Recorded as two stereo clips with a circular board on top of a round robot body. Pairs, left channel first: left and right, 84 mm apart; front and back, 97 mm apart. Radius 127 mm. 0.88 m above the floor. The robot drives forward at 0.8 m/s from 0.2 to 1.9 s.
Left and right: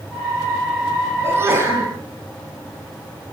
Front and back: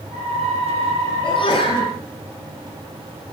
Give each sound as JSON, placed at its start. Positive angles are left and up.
{"t": 1.2, "sound": "a sneeze", "azimuth_deg": -30, "distance_m": 9.0}